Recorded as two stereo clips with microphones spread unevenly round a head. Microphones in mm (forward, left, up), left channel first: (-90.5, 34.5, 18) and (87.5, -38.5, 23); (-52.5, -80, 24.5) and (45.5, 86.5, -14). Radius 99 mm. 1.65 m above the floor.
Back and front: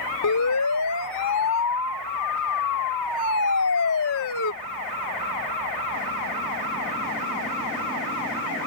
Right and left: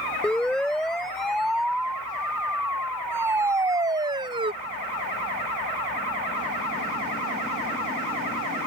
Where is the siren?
155° left; by 4.5 s 130° left.